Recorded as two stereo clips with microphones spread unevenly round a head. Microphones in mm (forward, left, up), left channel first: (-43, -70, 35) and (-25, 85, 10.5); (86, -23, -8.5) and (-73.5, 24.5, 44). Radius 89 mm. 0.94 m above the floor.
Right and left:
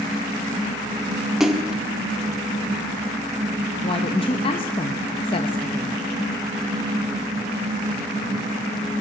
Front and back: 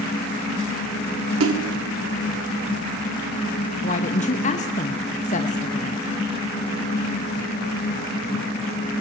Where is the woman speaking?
35° right, 1.0 m.